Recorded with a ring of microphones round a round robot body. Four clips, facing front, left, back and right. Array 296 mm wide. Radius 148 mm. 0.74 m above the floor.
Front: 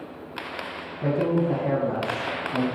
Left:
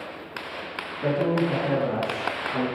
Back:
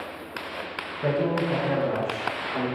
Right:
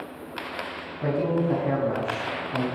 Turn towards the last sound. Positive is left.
turn(degrees=-40)